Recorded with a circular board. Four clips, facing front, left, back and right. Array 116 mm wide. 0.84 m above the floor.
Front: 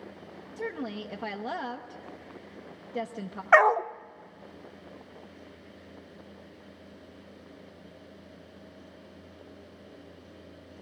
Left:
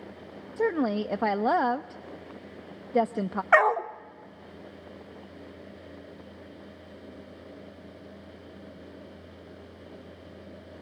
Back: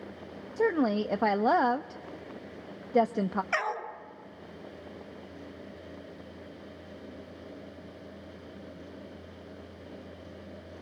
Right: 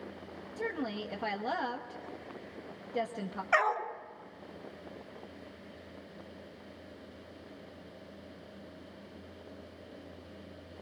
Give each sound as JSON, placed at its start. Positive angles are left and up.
{"t": 0.6, "sound": "a woman speaking", "azimuth_deg": 135, "distance_m": 0.6}
{"t": 3.5, "sound": "a dog barking", "azimuth_deg": 35, "distance_m": 0.8}